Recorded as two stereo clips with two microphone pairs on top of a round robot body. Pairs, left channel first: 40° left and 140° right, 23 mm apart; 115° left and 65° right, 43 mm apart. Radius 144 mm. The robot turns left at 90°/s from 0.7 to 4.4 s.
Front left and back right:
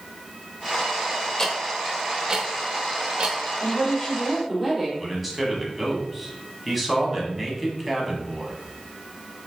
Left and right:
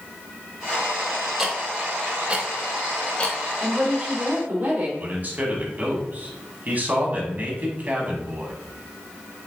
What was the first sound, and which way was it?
Ticking, 5° right.